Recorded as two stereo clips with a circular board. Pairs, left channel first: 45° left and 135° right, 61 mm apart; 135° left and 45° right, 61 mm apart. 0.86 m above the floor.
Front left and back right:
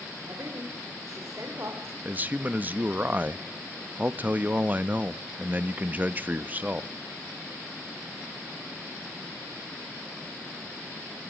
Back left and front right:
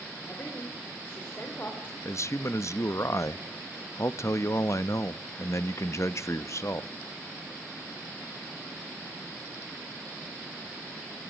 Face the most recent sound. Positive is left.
turn(degrees=165)